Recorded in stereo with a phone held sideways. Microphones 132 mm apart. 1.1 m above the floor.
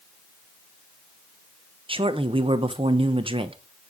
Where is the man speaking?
40° right (ahead or behind), 0.9 m.